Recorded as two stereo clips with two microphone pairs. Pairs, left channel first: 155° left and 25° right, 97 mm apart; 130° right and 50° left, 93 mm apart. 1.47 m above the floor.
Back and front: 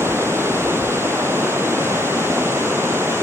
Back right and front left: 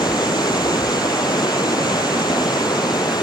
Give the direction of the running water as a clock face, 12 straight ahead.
3 o'clock.